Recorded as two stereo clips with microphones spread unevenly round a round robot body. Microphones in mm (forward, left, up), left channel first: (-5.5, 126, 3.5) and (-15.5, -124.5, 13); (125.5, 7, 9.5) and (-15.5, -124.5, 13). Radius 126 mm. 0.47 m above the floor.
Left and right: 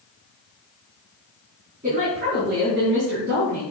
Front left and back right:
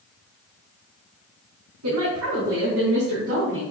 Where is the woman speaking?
160° right, 4.5 m; by 3.6 s 125° right, 4.5 m.